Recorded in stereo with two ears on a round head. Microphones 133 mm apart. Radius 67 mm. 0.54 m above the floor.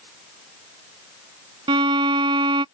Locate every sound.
1.7 s a violin: 35° right (ahead or behind)